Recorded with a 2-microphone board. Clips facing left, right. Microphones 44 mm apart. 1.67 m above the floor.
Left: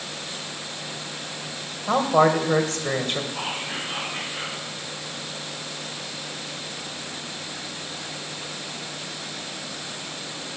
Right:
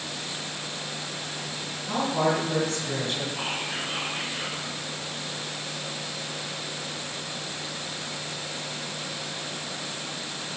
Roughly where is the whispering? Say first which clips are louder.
Left 1 dB; left.